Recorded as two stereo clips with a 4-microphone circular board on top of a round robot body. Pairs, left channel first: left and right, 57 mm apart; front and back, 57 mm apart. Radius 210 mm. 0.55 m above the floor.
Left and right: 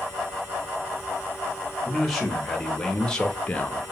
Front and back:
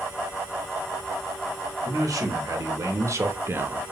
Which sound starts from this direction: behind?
A man speaking, at 1.9 s.